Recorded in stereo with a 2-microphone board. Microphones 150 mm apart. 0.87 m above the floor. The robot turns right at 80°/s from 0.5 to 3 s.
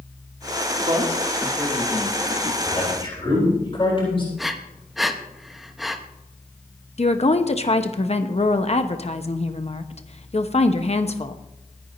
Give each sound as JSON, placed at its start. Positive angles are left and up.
{"t": 0.8, "sound": "a man speaking", "side_deg": -40, "distance_m": 2.5}
{"t": 2.6, "sound": "a man speaking", "azimuth_deg": 0, "distance_m": 9.0}
{"t": 4.4, "sound": "breathing", "side_deg": 0, "distance_m": 1.1}
{"t": 7.0, "sound": "a woman speaking", "side_deg": 45, "distance_m": 1.1}